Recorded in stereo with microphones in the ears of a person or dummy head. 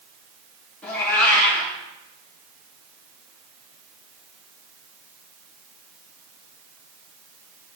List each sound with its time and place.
0.8 s a cat meowing: 15° left (ahead or behind), 2.5 m